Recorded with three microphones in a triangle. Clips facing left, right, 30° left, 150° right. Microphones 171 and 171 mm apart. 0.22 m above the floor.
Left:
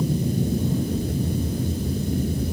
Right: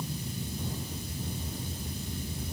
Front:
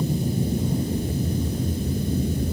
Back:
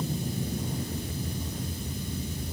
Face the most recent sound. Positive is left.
turn(degrees=65)